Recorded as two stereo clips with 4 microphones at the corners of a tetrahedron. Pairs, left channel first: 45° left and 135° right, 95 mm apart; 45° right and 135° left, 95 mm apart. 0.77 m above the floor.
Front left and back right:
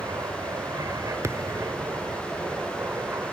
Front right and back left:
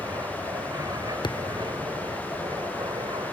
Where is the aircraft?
Straight behind; by 3.3 s 160° left.